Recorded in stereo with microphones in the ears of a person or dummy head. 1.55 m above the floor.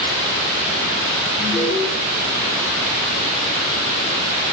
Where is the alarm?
Centre (ahead or behind), 6 m.